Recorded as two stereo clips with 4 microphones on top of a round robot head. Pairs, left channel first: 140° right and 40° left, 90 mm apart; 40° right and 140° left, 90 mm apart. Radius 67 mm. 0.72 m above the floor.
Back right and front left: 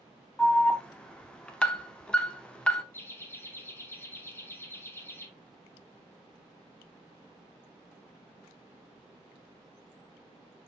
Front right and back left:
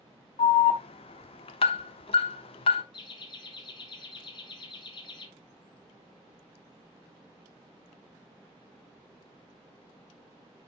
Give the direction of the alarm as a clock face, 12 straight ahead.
2 o'clock.